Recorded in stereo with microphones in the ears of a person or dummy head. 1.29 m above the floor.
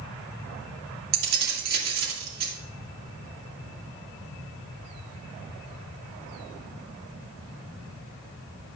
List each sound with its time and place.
1.1 s keys jangling: 60° right (ahead or behind), 2.0 m